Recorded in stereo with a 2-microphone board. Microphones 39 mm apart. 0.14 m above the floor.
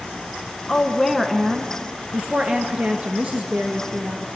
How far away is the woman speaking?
About 1.1 m.